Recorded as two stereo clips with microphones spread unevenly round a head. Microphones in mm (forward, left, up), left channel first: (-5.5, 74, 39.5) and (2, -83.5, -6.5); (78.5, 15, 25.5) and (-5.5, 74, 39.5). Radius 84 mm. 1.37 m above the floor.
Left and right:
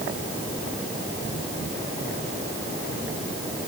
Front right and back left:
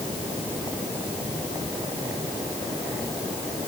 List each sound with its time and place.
Only background noise.